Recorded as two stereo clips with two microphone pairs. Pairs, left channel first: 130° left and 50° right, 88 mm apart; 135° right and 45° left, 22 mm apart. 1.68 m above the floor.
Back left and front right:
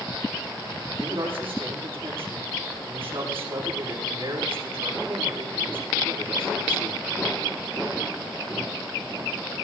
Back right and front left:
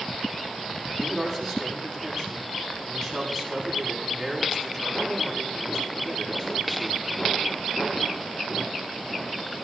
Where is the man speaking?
55° right, 7.5 m.